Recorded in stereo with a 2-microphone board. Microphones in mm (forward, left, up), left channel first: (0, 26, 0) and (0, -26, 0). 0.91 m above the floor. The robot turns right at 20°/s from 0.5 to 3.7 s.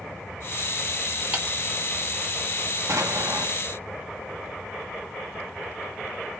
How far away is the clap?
About 1.7 m.